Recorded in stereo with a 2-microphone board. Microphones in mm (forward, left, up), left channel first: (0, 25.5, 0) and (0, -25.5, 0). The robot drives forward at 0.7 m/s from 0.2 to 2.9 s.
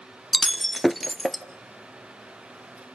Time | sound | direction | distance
0.3 | breaking glass | centre (ahead or behind) | 0.5 m